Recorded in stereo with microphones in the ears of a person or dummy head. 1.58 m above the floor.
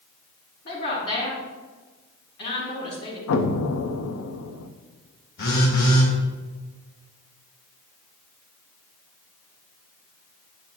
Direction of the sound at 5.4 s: 60° left (ahead or behind).